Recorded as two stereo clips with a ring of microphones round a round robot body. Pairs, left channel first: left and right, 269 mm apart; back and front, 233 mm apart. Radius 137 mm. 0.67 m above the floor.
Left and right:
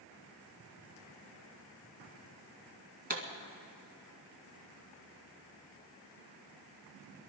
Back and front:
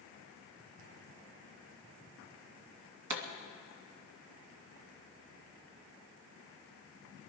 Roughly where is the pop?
Ahead right.